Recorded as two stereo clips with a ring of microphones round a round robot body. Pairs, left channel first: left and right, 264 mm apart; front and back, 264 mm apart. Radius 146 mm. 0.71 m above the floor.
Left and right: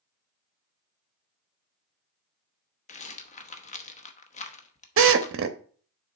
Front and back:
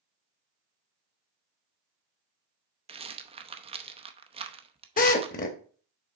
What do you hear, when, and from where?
2.9 s a rattle: 130° left, 0.8 m
5.0 s a drill: 55° right, 0.8 m